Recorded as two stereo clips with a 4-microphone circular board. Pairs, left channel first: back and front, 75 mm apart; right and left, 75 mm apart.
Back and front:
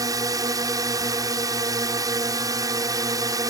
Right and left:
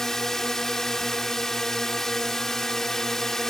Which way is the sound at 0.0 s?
5° right.